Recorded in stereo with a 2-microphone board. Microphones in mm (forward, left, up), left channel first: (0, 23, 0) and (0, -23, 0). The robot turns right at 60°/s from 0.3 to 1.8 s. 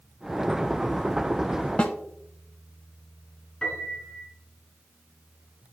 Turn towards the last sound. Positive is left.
turn(degrees=5)  # may be behind; listen again after turning